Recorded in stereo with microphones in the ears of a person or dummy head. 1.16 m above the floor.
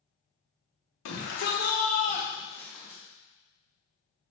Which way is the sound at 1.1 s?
60° left (ahead or behind).